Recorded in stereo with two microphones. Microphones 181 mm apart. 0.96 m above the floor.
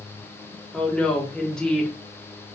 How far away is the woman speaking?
About 0.9 m.